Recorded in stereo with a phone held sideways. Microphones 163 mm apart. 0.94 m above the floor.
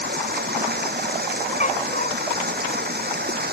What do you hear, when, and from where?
0.0 s running water: 90° right
1.6 s a dog barking: 55° left (ahead or behind)